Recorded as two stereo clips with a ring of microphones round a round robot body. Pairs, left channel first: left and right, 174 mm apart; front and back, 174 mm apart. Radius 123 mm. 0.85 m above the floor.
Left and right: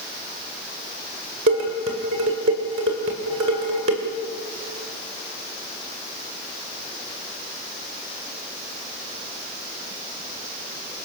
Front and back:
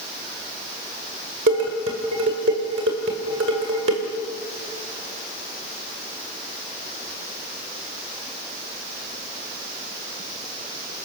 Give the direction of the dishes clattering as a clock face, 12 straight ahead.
4 o'clock.